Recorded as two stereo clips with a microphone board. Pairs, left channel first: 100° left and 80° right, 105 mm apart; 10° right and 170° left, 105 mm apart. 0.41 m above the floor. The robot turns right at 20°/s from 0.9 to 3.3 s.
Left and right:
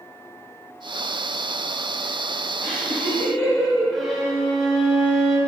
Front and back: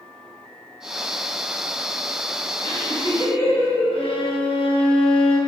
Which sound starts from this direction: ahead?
A violin, at 3.9 s.